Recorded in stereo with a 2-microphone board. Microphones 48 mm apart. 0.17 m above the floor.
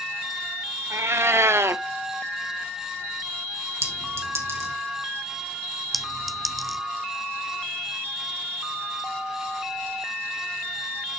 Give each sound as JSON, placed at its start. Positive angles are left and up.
{"t": 0.9, "sound": "a cat meowing", "side_deg": -70, "distance_m": 0.6}
{"t": 3.8, "sound": "a clink", "side_deg": -70, "distance_m": 3.0}
{"t": 5.9, "sound": "a clink", "side_deg": 0, "distance_m": 0.9}